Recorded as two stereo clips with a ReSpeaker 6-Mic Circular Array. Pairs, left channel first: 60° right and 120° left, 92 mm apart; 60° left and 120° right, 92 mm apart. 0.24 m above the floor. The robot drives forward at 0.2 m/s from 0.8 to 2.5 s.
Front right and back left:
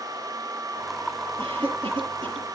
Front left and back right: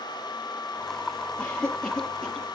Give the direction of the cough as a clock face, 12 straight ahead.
7 o'clock.